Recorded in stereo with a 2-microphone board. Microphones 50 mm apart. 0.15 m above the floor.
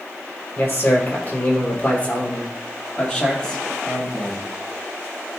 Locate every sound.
0.6 s a man speaking: 40° left (ahead or behind), 2.5 m; by 4.5 s 10° left (ahead or behind), 4 m